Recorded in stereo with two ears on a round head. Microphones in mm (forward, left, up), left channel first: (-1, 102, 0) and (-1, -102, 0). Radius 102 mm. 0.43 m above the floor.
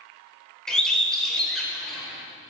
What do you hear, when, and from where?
0.7 s a bird: 5° left (ahead or behind), 0.8 m